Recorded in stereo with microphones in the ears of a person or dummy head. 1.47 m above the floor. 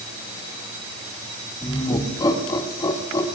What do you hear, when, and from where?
1.6 s laughter: 25° left (ahead or behind), 2 m